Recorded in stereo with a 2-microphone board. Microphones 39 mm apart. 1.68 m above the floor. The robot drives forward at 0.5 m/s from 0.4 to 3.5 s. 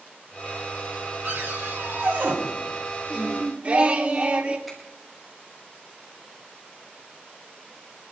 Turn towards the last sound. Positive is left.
turn(degrees=0)  # may be behind; listen again after turning